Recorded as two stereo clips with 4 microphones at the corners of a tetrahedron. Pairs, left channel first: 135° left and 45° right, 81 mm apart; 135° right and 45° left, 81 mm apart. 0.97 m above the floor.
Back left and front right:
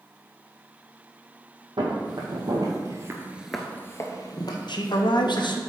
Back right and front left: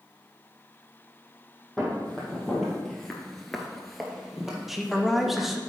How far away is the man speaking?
About 0.8 m.